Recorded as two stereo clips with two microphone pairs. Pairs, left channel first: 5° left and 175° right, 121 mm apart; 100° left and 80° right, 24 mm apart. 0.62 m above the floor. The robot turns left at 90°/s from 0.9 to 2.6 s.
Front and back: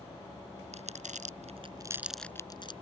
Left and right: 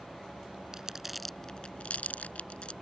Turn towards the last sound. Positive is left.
turn(degrees=55)